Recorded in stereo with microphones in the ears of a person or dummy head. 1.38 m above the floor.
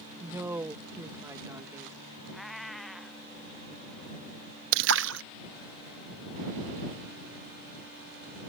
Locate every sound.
0.2 s a woman speaking: 15° right (ahead or behind)
2.3 s a cat meowing: 5° right (ahead or behind)
4.7 s a splash: 70° right (ahead or behind)